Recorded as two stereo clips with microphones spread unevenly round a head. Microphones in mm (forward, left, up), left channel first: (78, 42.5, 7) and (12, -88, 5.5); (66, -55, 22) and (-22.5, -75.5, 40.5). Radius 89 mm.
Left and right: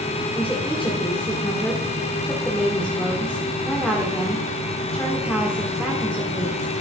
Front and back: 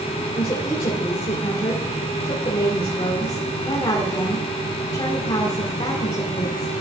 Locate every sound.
0.3 s a woman speaking: 20° right, 2 m